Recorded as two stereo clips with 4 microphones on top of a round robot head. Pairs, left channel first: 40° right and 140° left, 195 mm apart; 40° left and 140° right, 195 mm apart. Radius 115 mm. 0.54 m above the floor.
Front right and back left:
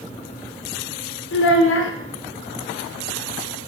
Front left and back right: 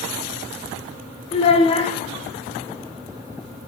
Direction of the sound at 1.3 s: 20° right.